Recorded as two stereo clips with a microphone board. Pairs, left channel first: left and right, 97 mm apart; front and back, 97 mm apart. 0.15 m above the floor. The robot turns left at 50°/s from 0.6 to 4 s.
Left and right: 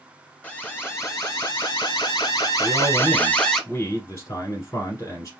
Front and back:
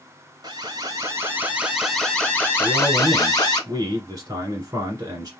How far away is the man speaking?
About 1.6 m.